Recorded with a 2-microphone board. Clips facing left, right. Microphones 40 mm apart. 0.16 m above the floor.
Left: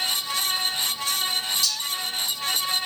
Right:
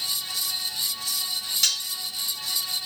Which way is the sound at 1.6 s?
50° right (ahead or behind).